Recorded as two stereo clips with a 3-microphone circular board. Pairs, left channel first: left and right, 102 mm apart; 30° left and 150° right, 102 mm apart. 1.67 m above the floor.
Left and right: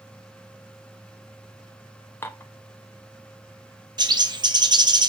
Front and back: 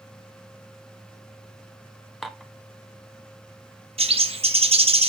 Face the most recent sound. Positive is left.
turn(degrees=-135)